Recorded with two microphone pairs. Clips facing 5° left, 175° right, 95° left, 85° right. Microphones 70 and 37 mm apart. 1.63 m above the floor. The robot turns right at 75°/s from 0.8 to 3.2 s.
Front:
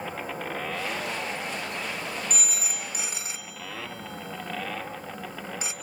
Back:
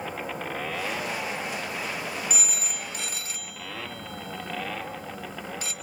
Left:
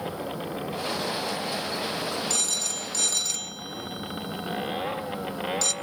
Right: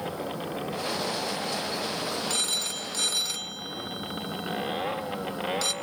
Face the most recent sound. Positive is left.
turn(degrees=-30)